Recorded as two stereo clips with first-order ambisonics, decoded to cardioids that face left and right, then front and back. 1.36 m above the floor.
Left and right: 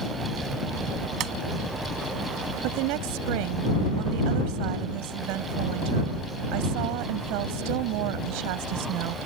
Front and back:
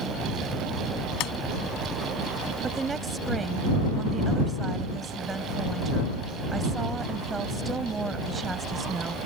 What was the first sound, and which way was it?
Tapping, 40° right.